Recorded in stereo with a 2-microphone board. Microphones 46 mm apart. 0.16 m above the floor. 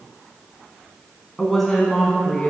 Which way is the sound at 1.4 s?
Centre (ahead or behind).